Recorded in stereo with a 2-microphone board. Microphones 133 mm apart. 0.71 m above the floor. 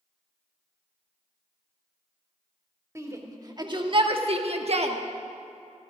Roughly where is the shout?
Right.